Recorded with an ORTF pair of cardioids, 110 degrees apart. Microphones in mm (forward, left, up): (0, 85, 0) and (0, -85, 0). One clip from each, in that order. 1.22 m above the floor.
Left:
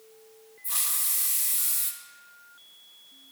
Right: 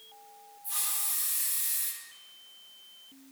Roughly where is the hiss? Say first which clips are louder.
Left 4 dB; ahead left.